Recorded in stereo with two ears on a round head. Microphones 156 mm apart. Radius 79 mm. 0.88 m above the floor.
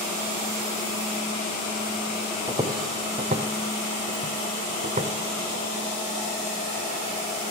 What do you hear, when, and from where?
2.5 s footsteps: 20° right (ahead or behind), 1.4 m; by 5.1 s 35° right (ahead or behind), 1.8 m